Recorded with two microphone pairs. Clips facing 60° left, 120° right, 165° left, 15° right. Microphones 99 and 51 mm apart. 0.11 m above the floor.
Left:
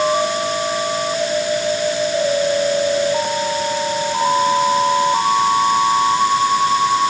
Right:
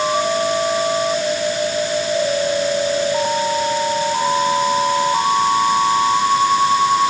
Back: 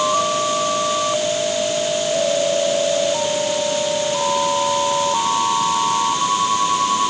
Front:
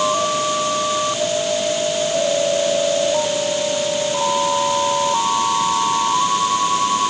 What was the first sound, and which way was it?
Only background noise.